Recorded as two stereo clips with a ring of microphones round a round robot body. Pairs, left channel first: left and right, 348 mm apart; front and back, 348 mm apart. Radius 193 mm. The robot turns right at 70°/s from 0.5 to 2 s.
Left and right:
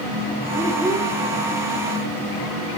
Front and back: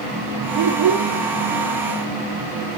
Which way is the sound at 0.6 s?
165° left.